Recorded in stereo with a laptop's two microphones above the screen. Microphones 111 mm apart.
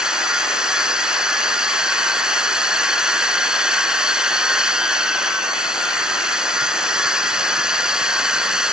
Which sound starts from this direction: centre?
A machine running, at 0.0 s.